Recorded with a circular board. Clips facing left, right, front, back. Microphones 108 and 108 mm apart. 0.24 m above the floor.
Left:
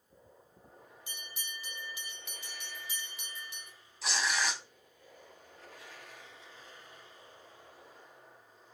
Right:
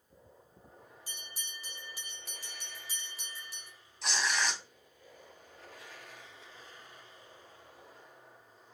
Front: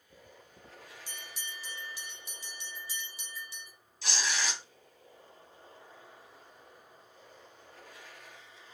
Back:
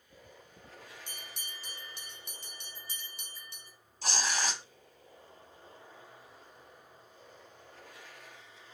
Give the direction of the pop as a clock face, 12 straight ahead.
I don't hear a pop.